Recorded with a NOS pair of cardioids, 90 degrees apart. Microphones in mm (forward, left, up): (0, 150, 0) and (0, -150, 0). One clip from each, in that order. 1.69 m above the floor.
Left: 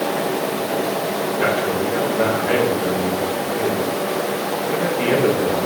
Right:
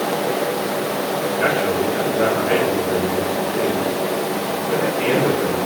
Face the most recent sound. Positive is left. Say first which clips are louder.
# right 1 dB
turn(degrees=0)